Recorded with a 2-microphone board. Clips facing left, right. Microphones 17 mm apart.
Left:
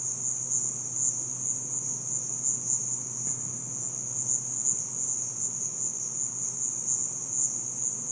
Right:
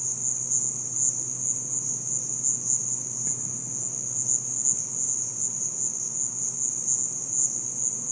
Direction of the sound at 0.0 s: 25° right (ahead or behind).